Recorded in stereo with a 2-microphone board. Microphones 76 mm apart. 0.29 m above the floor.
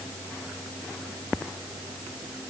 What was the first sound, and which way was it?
Only background noise.